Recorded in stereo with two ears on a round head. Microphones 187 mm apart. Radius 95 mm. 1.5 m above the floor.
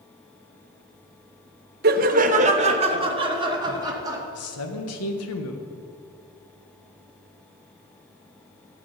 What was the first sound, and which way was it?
Laughter, 45° right (ahead or behind).